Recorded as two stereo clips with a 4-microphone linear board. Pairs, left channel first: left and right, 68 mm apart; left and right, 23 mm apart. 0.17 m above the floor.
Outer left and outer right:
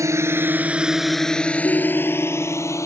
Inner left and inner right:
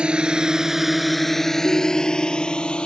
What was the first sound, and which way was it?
A drone, 45° right (ahead or behind).